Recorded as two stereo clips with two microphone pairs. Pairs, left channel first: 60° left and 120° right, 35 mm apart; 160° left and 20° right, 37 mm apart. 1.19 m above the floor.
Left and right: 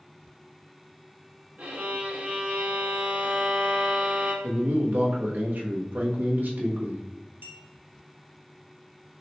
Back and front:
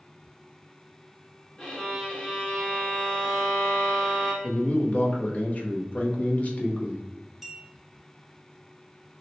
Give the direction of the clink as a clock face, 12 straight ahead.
4 o'clock.